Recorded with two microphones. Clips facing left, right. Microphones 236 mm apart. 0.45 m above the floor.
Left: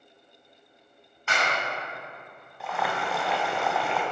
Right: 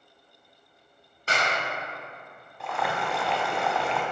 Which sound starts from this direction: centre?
Boiling, at 2.6 s.